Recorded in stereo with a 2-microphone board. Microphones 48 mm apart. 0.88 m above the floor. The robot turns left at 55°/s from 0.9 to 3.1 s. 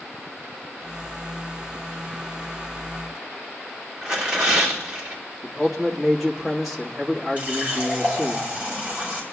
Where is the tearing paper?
20° right (ahead or behind), 3 m.